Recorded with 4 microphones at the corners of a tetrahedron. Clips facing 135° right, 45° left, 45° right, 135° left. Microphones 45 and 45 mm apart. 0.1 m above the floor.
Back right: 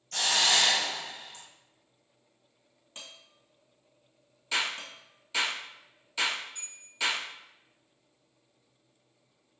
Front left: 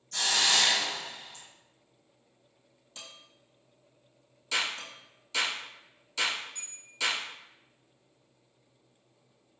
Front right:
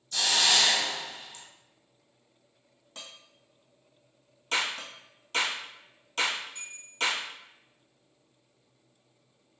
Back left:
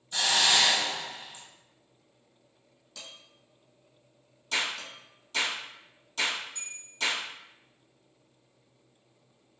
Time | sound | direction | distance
0.1 | a hiss | 160° right | 1.4 m
3.0 | dishes clattering | 85° right | 1.8 m
4.5 | a clap | 60° right | 1.7 m
6.5 | a bell | 85° right | 1.9 m